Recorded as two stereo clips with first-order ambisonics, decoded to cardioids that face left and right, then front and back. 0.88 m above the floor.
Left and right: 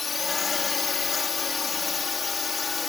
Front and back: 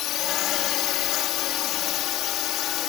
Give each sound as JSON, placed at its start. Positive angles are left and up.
{"t": 0.0, "sound": "a drone", "azimuth_deg": 20}